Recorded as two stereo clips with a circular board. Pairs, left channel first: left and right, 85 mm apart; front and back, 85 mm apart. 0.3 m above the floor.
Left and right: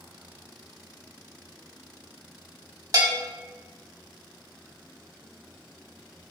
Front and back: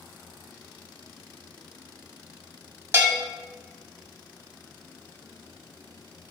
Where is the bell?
125° right, 0.7 m.